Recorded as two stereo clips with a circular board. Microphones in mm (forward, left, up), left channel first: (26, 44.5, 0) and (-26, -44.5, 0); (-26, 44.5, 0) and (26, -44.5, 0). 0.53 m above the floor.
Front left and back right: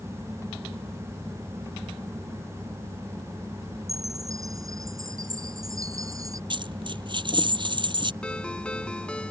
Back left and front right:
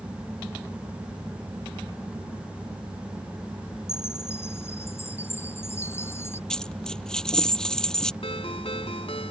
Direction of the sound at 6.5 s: 160° right.